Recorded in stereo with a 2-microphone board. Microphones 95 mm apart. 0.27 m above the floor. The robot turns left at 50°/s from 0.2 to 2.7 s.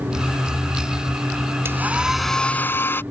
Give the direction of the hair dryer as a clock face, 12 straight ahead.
5 o'clock.